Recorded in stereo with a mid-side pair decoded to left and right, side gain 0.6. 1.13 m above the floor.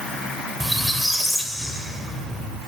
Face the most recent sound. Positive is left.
turn(degrees=5)